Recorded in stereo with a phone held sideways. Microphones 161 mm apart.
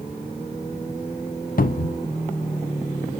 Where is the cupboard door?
60° left (ahead or behind), 0.6 m.